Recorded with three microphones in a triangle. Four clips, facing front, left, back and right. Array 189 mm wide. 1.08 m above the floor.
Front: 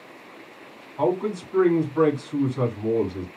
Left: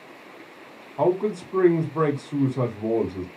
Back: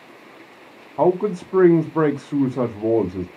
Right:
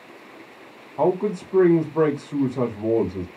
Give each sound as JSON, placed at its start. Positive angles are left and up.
{"t": 1.0, "sound": "a man speaking", "azimuth_deg": -175, "distance_m": 0.9}